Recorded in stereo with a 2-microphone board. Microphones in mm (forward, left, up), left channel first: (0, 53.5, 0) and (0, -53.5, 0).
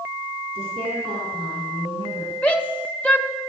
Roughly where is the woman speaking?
Right.